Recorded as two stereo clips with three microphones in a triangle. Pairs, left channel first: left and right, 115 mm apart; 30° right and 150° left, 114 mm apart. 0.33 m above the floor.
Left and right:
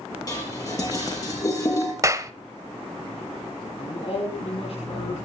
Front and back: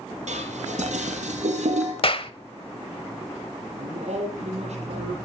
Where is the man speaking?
125° left, 10 m.